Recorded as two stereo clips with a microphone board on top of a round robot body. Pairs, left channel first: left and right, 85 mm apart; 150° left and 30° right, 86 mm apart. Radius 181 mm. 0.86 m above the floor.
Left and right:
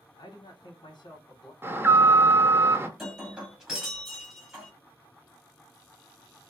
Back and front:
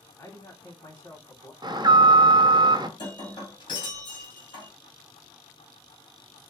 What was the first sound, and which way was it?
A man speaking, 95° left.